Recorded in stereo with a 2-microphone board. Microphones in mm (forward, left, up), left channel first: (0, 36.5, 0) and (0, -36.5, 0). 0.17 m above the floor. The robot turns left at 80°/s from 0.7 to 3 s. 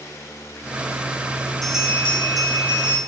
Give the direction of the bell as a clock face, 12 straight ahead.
12 o'clock.